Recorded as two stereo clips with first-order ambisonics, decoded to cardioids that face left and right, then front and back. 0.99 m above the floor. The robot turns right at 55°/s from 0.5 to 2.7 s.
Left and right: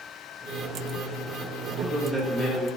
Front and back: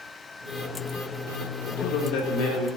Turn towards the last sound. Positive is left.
turn(degrees=30)